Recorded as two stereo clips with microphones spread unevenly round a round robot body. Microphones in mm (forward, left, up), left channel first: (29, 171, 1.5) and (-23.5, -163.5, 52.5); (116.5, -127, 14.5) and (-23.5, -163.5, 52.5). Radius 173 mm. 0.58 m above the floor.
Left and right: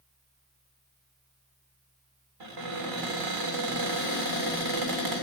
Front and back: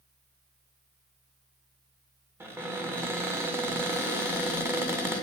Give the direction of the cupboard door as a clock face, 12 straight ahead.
3 o'clock.